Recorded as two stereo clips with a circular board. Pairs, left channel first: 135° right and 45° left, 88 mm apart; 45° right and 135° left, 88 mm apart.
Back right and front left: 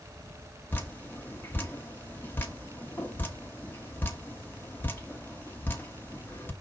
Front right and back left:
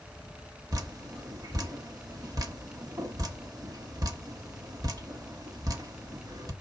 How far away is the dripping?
About 1.2 m.